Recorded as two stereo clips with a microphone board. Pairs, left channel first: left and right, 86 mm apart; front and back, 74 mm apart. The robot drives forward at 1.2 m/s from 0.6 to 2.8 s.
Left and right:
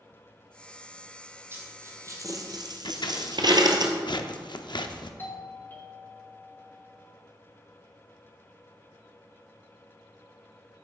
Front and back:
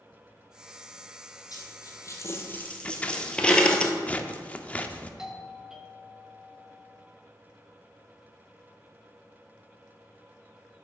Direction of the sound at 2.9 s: 70° left.